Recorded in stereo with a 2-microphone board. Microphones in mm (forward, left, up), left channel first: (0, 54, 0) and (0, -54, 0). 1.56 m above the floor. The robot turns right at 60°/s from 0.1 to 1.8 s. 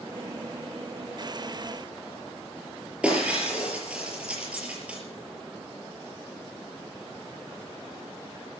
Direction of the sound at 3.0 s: 10° right (ahead or behind).